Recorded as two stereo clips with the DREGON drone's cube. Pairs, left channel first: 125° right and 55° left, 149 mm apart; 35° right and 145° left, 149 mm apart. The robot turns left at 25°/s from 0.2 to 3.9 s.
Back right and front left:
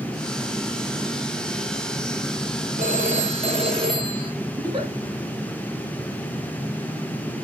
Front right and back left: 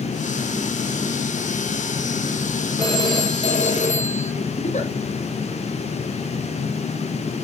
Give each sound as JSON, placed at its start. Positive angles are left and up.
{"t": 2.8, "sound": "a phone ringing", "azimuth_deg": 30, "distance_m": 4.0}
{"t": 4.6, "sound": "a giggle", "azimuth_deg": 0, "distance_m": 5.5}